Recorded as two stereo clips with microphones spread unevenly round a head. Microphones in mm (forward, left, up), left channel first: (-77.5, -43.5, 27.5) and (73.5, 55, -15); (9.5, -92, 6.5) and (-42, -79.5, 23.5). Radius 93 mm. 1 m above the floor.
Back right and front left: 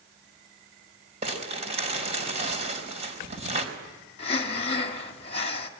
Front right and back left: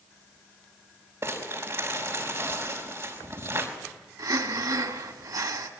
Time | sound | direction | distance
1.2 | crumpling | 90° left | 4 m
4.2 | breathing | 155° left | 1.9 m